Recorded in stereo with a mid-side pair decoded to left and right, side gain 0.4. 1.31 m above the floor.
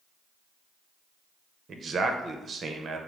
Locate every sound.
1.7 s a man speaking: 50° right, 0.8 m